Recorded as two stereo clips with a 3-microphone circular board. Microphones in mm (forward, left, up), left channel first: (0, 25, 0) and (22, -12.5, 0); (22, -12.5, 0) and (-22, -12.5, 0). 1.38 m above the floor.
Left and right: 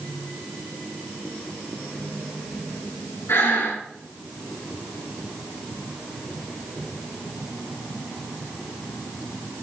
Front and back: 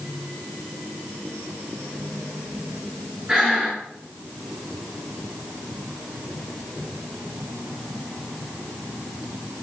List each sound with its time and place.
3.3 s breathing: 110° left, 6.5 m